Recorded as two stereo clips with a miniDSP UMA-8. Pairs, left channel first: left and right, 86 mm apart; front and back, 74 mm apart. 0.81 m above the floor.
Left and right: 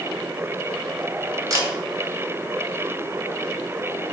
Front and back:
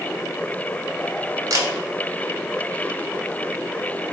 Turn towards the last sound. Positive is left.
turn(degrees=-140)